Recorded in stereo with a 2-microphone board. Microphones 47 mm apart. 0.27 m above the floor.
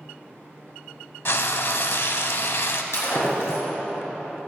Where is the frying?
60° left (ahead or behind), 0.5 m.